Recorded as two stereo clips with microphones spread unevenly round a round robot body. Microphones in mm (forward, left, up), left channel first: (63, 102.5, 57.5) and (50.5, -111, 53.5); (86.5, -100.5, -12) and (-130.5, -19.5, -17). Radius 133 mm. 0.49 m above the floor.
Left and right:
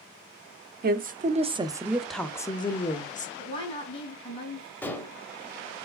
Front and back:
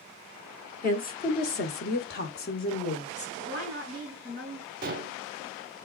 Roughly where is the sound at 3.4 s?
Ahead.